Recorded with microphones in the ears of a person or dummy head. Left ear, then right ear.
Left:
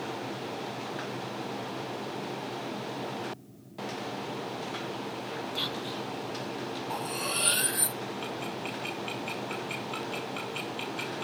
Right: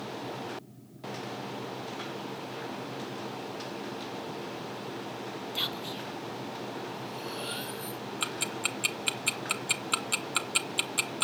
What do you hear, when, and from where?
5.5 s whispering: 15° right (ahead or behind), 0.9 m
6.9 s cutlery clinking: 40° left (ahead or behind), 0.9 m
8.2 s ticking: 50° right (ahead or behind), 0.9 m